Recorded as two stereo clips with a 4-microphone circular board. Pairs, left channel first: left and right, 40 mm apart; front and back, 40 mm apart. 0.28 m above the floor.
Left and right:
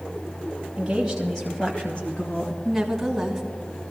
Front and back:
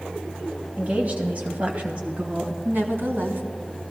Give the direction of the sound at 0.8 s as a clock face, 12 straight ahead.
5 o'clock.